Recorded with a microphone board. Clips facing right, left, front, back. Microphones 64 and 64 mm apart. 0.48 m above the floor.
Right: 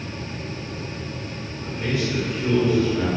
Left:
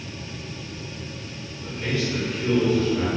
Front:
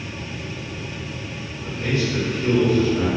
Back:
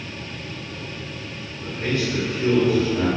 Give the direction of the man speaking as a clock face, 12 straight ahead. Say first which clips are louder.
Right 1 dB, front 1 dB; 6 o'clock.